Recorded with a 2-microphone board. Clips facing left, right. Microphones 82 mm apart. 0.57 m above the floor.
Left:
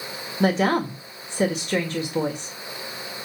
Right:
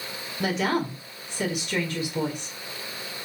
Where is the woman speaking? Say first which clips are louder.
Left 5 dB; 35° left (ahead or behind), 1.7 m.